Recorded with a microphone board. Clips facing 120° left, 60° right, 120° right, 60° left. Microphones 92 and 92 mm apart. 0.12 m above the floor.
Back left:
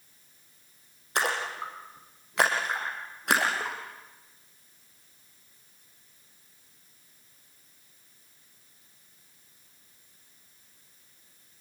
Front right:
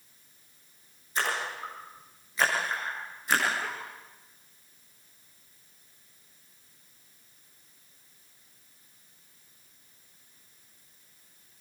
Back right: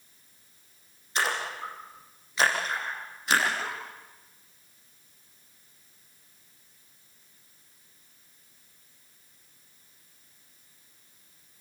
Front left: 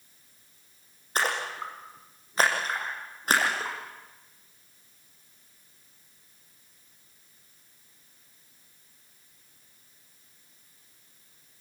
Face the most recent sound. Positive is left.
turn(degrees=105)